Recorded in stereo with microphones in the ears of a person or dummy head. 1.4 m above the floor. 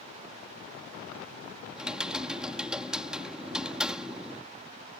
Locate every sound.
1.8 s typing on a keyboard: 5° right (ahead or behind)